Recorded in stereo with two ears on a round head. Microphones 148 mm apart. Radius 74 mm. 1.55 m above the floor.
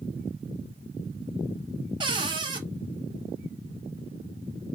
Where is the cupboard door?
30° right (ahead or behind), 0.8 m.